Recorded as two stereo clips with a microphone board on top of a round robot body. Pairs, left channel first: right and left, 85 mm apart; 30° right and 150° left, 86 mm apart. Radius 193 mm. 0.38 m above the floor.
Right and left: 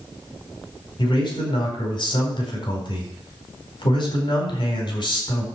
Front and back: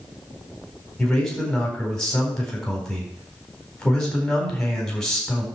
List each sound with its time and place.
1.0 s a man speaking: 115° right, 4.5 m